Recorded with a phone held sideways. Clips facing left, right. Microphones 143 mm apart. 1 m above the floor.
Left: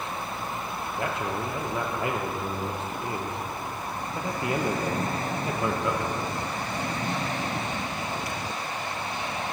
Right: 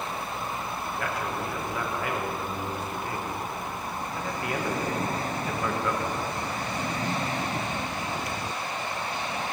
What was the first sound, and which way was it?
A man speaking, 25° left (ahead or behind).